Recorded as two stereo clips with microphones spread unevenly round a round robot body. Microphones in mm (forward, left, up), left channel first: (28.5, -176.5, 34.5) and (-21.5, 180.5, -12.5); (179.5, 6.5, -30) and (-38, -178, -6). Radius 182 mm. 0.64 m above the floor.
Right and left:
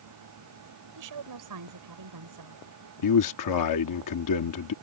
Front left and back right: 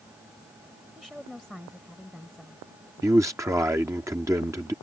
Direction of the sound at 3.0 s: 60° right.